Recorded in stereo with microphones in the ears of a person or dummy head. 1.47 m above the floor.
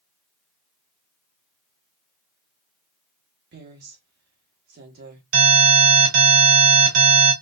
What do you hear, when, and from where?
3.5 s a woman speaking: 55° right (ahead or behind), 1.4 m
5.3 s an alarm: 70° right (ahead or behind), 3.5 m